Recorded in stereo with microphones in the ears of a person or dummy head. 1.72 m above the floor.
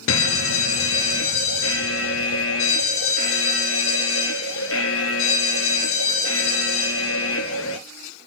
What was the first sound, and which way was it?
A fire alarm, 70° left (ahead or behind).